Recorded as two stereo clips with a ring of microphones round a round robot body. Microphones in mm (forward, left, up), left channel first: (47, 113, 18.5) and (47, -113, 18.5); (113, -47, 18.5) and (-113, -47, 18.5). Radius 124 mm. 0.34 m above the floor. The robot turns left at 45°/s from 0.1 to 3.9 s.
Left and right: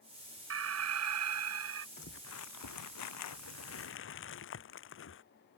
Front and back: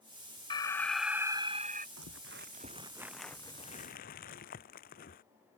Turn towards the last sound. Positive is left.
turn(degrees=60)